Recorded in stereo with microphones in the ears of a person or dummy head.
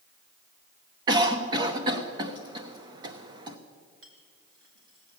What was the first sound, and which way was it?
A cough, 20° right (ahead or behind).